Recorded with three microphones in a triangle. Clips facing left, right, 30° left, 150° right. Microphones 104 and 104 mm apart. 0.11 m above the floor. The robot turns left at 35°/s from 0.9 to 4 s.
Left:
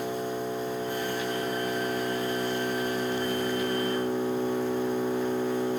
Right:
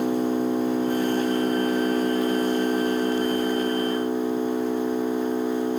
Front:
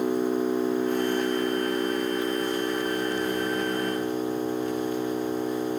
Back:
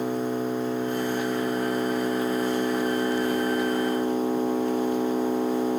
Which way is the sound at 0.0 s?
55° right.